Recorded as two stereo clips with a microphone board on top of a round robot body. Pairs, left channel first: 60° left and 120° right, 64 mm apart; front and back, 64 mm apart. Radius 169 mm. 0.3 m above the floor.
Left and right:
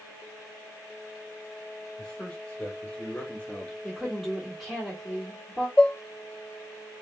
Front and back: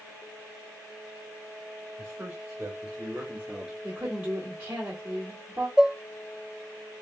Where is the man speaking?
130° left, 1.9 m; by 3.7 s 110° left, 1.0 m.